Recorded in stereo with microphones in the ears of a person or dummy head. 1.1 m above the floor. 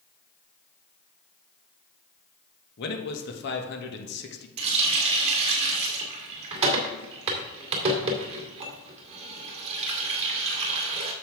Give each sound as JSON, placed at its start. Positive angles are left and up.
{"t": 2.8, "sound": "a man speaking", "side_deg": 65, "distance_m": 1.5}
{"t": 4.6, "sound": "a running tap", "side_deg": -35, "distance_m": 2.0}